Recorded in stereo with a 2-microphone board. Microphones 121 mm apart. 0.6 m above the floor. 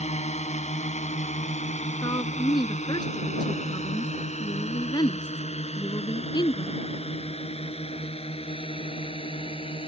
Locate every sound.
0.0 s a drone: 70° left (ahead or behind); by 9.9 s 50° left (ahead or behind)
2.0 s a woman speaking: 35° left (ahead or behind)